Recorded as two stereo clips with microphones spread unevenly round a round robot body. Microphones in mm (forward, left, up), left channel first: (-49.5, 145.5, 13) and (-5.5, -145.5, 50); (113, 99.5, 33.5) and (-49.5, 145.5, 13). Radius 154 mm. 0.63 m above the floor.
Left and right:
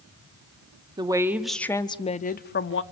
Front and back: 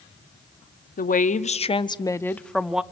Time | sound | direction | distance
1.0 | a woman speaking | 5° right | 1.2 m